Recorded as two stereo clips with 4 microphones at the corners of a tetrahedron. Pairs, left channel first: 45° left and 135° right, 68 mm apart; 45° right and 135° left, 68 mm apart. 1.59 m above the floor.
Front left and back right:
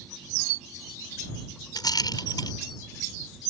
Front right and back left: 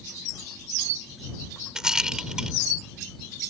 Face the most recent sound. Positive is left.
turn(degrees=55)